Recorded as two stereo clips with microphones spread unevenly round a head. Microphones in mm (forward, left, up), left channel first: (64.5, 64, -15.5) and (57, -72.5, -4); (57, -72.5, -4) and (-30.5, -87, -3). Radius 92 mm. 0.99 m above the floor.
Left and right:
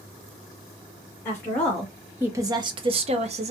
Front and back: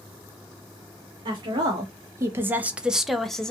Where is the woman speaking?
155° left, 0.9 m; by 3.5 s 70° right, 0.9 m.